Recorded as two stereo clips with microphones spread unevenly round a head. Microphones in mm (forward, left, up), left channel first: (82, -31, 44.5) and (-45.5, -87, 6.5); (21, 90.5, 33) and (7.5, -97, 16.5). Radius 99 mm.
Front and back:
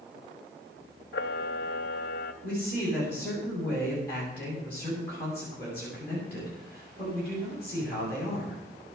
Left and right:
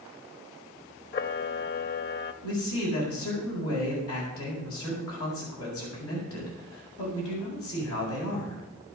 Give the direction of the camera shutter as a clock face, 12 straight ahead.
10 o'clock.